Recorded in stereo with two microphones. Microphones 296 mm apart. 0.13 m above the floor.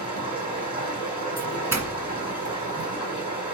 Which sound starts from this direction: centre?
A doorbell, at 1.4 s.